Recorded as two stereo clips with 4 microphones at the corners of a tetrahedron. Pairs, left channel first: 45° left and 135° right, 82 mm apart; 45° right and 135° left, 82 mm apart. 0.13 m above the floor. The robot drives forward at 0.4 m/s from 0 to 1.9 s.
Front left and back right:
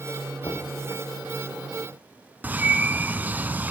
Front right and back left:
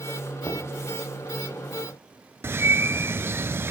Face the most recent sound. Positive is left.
turn(degrees=170)